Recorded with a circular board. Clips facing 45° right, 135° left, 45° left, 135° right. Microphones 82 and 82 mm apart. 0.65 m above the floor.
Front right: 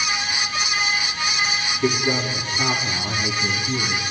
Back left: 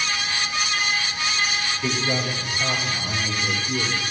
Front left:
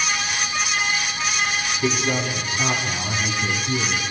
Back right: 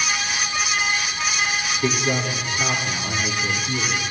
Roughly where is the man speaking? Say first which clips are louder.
Front right 5 dB, even; ahead.